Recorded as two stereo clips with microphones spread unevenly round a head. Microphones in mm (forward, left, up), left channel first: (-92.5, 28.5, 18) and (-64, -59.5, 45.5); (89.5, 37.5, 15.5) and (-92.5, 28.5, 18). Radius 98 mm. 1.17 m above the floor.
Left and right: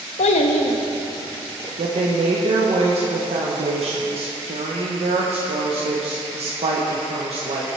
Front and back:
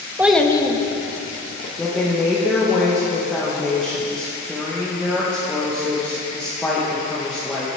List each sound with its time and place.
0.2 s a child speaking: 105° left, 0.7 m; by 1.7 s 40° left, 1.8 m
1.8 s a woman speaking: 80° right, 0.9 m